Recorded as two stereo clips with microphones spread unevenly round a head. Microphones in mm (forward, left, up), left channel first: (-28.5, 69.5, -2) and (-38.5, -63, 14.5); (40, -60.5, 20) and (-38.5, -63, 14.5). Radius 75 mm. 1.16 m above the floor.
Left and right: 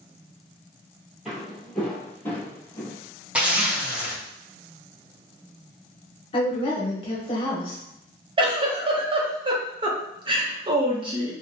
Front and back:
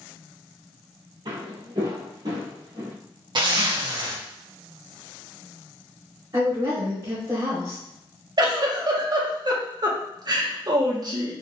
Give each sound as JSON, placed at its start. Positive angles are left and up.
{"t": 1.2, "sound": "footsteps", "azimuth_deg": -175, "distance_m": 1.8}
{"t": 3.4, "sound": "a zipper", "azimuth_deg": -175, "distance_m": 1.0}
{"t": 6.3, "sound": "a woman speaking", "azimuth_deg": 130, "distance_m": 0.9}
{"t": 8.4, "sound": "a giggle", "azimuth_deg": -150, "distance_m": 0.8}